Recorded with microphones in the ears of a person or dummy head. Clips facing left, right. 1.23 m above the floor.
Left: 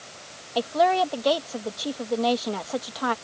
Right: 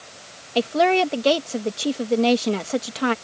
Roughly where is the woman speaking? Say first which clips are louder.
Right 3 dB; right.